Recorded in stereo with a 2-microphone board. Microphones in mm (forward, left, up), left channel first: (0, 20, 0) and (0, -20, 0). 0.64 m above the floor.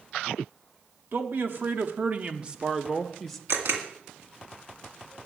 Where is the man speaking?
60° right (ahead or behind), 1.1 m; by 3.4 s 10° left (ahead or behind), 0.8 m.